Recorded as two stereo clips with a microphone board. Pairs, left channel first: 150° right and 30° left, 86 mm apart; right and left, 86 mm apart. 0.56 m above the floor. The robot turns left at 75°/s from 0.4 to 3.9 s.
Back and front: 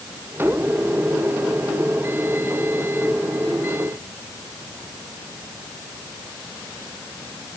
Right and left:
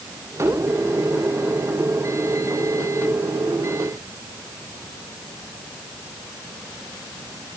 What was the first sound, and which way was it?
Only background noise.